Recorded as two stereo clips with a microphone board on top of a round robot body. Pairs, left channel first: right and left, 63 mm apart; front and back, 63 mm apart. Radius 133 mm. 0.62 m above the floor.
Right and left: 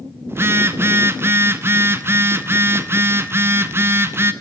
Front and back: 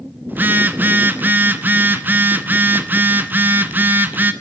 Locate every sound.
0.3 s a phone buzzing: 130° left, 1.1 m